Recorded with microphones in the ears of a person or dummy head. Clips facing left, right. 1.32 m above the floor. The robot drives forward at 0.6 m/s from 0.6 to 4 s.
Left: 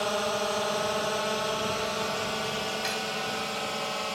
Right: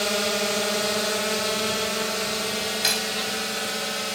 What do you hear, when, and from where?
0.0 s a drone: 25° right (ahead or behind); by 4.2 s 20° right (ahead or behind)
2.8 s cutlery clinking: 70° right (ahead or behind); by 3.2 s 65° right (ahead or behind)